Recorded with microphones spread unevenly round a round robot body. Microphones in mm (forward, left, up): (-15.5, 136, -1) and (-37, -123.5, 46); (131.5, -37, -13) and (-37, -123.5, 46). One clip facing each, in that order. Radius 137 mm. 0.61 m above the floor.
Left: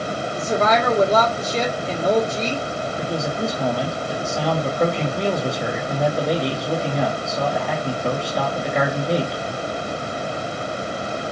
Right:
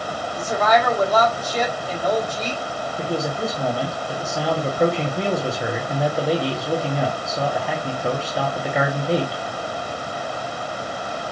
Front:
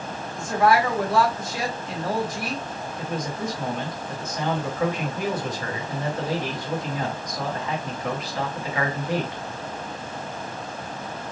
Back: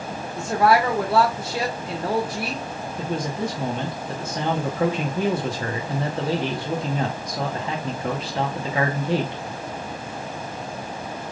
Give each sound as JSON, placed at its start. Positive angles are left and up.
{"t": 0.3, "sound": "a woman speaking", "azimuth_deg": 135, "distance_m": 1.3}
{"t": 3.0, "sound": "a man speaking", "azimuth_deg": 155, "distance_m": 0.9}